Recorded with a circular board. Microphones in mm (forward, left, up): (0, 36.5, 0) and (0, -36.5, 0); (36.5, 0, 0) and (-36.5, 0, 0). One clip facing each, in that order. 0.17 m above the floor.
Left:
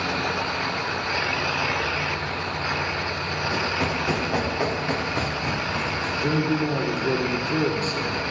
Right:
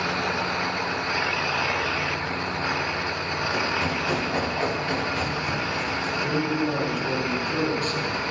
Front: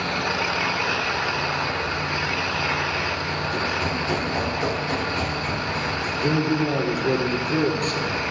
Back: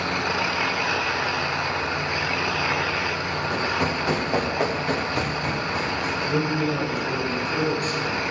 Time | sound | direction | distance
3.5 | running footsteps | 160° left | 7.5 m
6.2 | a man speaking | 35° left | 4 m